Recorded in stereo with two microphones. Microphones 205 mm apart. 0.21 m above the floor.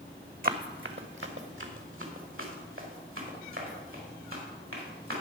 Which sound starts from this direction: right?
Running footsteps, at 0.4 s.